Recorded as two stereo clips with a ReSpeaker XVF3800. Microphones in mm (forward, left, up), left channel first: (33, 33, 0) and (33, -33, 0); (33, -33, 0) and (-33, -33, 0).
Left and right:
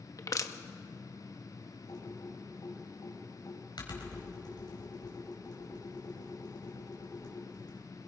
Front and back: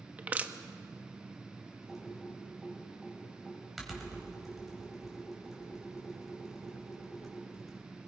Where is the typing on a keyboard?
90° left, 4.5 m.